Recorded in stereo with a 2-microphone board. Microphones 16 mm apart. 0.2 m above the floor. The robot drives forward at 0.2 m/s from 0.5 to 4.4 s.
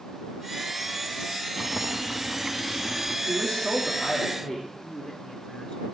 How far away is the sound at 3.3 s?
About 8 m.